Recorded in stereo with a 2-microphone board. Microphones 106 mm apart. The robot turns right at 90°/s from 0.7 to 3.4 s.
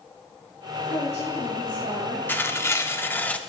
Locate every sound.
0.9 s a woman speaking: 60° left, 3 m; by 2.2 s straight behind, 3 m
2.3 s tearing paper: 20° left (ahead or behind), 0.7 m; by 3.4 s 10° left (ahead or behind), 0.7 m